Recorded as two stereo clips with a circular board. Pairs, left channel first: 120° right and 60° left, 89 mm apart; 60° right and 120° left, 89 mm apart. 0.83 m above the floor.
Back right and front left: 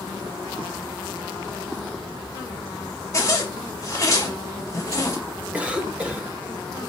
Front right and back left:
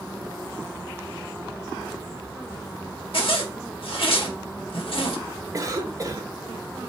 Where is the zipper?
65° right, 1.0 m.